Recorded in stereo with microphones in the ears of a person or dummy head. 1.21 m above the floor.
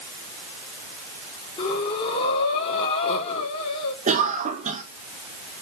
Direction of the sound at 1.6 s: 30° left (ahead or behind).